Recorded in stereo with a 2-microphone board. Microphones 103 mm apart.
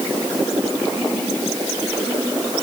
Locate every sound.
Only background noise.